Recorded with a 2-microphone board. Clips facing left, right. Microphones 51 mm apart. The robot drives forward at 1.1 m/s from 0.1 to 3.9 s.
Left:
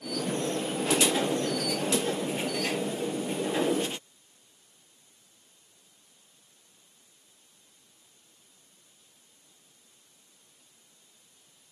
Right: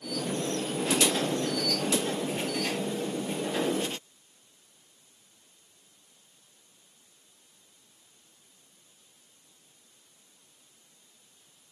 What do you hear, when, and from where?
Only background noise.